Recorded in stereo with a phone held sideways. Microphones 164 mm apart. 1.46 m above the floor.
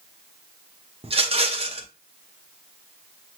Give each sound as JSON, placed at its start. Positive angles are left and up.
{"t": 1.0, "sound": "a rattle", "side_deg": -40, "distance_m": 0.8}